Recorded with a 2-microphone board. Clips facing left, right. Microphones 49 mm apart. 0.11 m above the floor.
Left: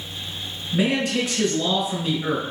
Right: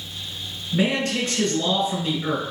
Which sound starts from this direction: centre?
A man speaking, at 0.7 s.